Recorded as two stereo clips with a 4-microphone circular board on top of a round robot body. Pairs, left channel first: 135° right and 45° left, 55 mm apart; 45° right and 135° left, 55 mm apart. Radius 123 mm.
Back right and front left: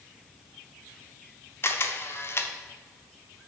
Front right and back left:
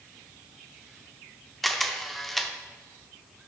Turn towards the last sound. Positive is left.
turn(degrees=-130)